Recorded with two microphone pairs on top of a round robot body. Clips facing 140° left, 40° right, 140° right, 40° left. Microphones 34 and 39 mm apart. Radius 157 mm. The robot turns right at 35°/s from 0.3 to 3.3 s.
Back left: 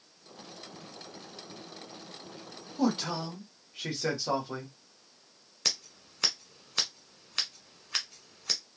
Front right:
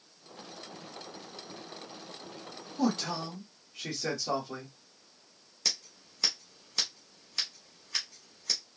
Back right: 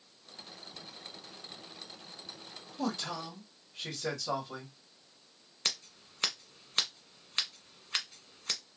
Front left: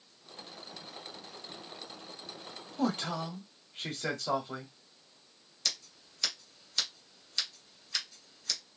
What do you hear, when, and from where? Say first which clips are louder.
2.8 s a man speaking: back left 1 dB, front left 3 dB; 60° left, 1.9 m; by 4.7 s 80° left, 1.9 m
5.7 s scissors: back left 1 dB, back right 2 dB; 170° left, 1.4 m